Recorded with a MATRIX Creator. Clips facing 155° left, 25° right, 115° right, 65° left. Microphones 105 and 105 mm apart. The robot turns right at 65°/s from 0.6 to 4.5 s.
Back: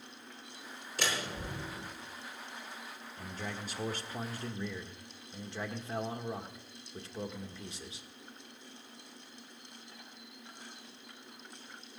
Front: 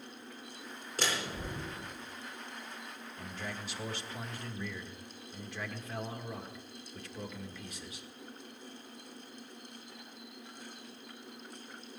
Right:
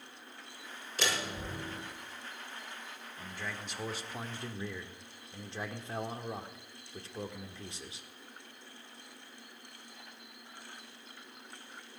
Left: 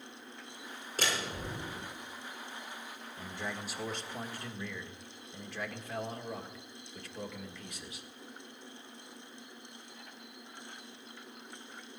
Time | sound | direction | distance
1.0 | a door slam | 20° left | 6.5 m
3.2 | a man speaking | 115° left | 1.5 m